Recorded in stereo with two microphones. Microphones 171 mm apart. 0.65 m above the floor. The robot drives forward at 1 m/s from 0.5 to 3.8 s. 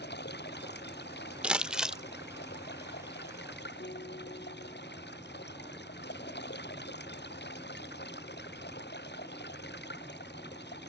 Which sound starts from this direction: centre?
Crumpling, at 1.4 s.